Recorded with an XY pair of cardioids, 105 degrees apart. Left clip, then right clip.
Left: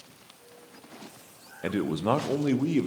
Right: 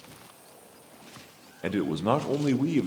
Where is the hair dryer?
I don't hear a hair dryer.